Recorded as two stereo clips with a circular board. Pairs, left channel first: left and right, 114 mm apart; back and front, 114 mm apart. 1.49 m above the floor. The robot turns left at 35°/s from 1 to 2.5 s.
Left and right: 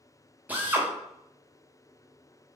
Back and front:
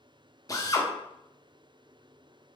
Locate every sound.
0.5 s a drill: 155° right, 0.8 m